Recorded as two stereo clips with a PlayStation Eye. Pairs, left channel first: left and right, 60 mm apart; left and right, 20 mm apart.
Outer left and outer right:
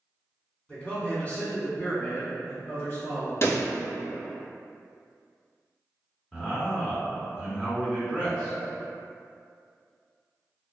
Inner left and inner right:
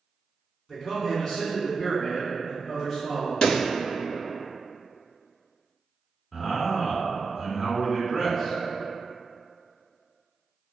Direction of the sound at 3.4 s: 45° left (ahead or behind).